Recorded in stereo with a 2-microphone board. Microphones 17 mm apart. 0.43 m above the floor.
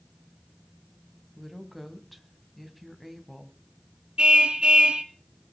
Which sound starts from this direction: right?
A car horn, at 4.2 s.